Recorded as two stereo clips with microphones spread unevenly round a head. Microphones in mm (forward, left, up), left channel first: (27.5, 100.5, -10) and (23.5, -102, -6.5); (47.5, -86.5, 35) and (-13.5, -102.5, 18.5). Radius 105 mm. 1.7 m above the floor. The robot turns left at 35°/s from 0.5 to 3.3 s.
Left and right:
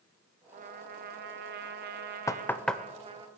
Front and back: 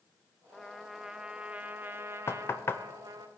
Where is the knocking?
15° left, 0.6 m; by 2.8 s straight ahead, 0.6 m.